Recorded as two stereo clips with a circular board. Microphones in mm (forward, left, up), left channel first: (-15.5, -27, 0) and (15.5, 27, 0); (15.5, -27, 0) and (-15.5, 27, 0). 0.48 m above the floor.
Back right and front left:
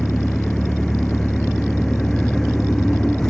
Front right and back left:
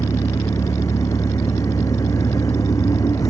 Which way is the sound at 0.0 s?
35° right.